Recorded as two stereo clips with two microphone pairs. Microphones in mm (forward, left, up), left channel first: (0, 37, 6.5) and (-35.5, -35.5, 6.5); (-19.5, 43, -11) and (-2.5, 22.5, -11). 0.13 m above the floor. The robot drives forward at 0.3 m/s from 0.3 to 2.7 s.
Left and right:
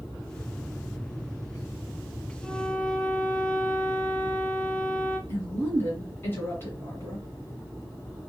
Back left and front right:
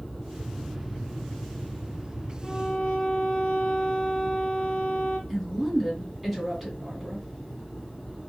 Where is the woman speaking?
55° left, 1.8 m.